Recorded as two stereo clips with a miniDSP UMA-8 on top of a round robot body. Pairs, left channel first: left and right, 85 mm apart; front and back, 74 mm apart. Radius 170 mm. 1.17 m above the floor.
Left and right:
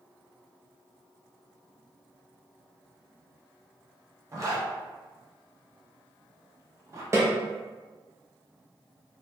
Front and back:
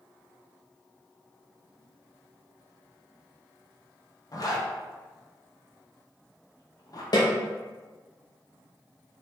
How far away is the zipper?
About 1.2 m.